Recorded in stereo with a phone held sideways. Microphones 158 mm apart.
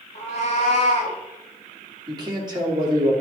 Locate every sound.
0.1 s a cat meowing: 45° left (ahead or behind), 2.0 m
2.1 s a man speaking: 25° right (ahead or behind), 2.5 m